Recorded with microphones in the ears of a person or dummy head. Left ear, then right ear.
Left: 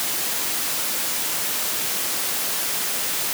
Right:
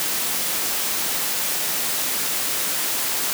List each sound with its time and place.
Only background noise.